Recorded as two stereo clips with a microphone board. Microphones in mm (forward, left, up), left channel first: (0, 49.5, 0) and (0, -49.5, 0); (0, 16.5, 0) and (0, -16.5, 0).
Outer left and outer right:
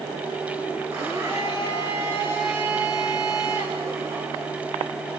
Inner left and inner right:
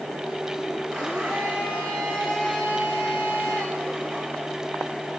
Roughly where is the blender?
Right.